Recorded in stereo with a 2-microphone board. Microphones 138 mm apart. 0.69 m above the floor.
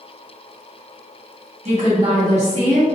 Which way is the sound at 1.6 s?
50° right (ahead or behind).